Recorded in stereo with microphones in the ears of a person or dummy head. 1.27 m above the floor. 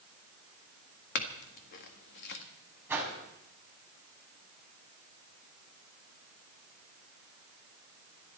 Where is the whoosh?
10° right (ahead or behind), 4.5 m.